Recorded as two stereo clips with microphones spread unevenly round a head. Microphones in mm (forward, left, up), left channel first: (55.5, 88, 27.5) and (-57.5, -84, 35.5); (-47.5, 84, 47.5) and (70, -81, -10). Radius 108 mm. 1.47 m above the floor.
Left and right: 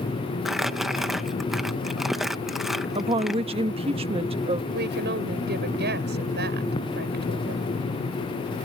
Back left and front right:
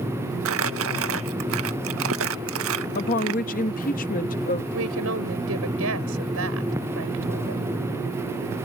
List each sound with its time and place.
0.5 s crumpling: 35° right
3.0 s a woman speaking: 175° left
4.7 s a woman speaking: 80° right